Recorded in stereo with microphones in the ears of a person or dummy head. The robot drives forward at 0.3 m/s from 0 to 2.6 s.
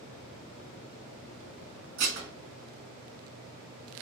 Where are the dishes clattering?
50° right (ahead or behind), 1.1 m.